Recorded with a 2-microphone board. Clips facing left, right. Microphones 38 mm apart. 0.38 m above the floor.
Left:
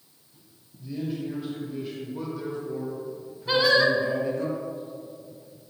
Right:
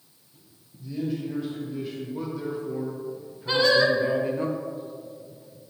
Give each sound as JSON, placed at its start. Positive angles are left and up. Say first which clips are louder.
{"t": 0.8, "sound": "a man speaking", "louder": "right 2 dB", "side_deg": 10, "distance_m": 1.7}
{"t": 3.5, "sound": "singing", "louder": "even", "side_deg": 5, "distance_m": 1.0}